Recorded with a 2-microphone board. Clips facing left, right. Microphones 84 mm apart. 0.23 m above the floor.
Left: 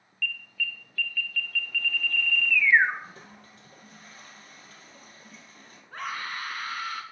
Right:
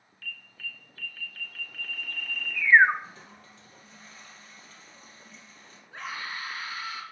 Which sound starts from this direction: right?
An alarm, at 0.2 s.